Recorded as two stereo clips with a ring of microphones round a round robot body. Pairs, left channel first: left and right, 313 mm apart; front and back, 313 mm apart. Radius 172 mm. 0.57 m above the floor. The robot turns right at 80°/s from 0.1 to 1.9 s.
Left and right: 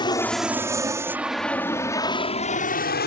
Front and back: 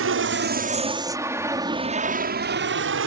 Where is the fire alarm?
I don't hear a fire alarm.